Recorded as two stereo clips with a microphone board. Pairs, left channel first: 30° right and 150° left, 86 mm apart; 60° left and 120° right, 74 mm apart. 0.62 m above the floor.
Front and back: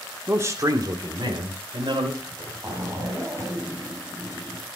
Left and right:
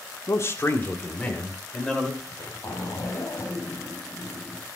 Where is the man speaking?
95° left, 1.6 m; by 2.1 s 140° left, 3 m.